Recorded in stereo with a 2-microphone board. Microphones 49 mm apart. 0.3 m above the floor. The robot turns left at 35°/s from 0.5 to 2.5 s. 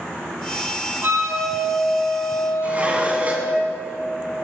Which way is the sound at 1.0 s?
45° right.